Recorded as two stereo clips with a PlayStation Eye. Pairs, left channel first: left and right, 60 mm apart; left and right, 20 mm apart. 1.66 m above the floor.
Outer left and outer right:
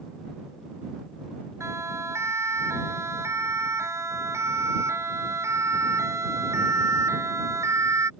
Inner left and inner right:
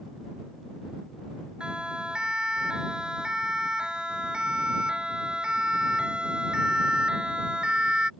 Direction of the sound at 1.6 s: 55° right (ahead or behind).